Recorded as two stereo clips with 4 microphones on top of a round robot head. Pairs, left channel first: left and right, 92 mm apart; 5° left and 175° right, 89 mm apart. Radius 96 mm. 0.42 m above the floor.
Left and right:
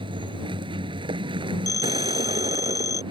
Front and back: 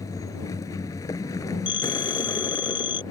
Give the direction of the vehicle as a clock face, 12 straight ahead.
2 o'clock.